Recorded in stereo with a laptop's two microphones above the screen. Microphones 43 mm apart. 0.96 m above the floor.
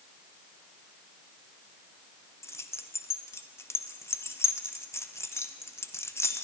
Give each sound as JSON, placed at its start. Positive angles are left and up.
{"t": 2.4, "sound": "keys jangling", "side_deg": 90, "distance_m": 0.6}